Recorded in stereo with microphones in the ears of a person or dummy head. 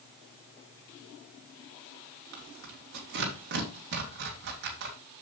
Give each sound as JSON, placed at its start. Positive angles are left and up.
{"t": 2.3, "sound": "tearing paper", "side_deg": -60, "distance_m": 2.0}